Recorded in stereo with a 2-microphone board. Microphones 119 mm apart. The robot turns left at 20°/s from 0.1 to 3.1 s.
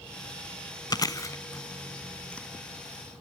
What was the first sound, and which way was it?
Chewing, 35° left (ahead or behind).